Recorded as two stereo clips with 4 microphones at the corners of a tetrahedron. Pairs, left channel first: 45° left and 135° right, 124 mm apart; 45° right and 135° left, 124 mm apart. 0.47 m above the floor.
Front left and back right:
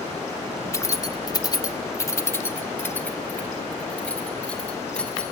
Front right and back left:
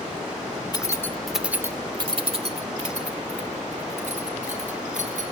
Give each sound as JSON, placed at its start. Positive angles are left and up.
{"t": 0.7, "sound": "keys jangling", "azimuth_deg": -10, "distance_m": 0.8}